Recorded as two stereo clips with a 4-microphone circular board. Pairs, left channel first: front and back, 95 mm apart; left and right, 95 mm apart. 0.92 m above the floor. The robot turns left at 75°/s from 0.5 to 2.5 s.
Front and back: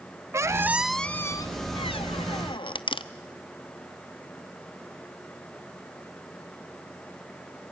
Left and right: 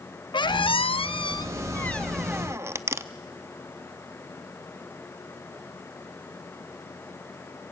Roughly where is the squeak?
Behind left.